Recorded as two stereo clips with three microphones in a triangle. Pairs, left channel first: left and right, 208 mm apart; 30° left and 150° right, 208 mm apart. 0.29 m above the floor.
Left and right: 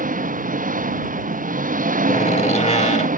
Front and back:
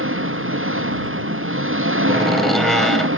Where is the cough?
No cough in this recording.